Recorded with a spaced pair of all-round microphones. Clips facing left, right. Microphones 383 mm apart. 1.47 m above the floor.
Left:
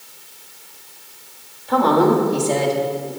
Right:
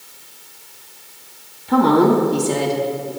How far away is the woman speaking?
About 3 m.